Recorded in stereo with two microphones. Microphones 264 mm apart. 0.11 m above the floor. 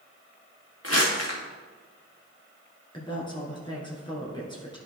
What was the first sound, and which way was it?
Crumpling, 55° left (ahead or behind).